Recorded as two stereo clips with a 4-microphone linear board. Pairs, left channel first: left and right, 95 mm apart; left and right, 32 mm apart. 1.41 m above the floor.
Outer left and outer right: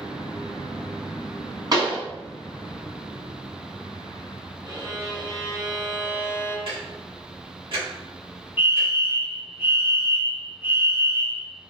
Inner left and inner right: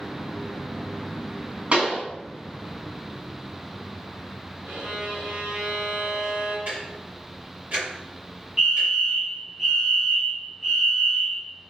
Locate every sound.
1.7 s a pop: 45° right (ahead or behind), 1.7 m
4.6 s a violin: 50° right (ahead or behind), 1.1 m
6.7 s ticking: 65° right (ahead or behind), 1.8 m
8.6 s a fire alarm: 25° right (ahead or behind), 1.7 m